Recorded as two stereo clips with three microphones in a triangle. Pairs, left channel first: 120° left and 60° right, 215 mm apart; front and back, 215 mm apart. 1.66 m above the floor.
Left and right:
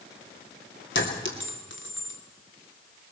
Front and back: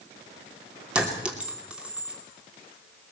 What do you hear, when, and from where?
0.9 s a clink: 95° left, 2.5 m